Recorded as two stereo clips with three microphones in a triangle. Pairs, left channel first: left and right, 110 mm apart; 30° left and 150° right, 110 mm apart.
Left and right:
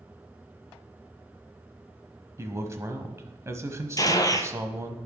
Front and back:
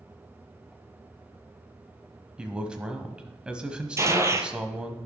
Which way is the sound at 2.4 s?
80° right.